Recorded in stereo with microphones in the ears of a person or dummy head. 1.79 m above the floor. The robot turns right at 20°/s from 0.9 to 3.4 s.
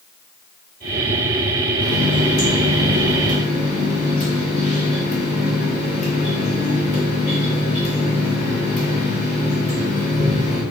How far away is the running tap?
About 1.1 m.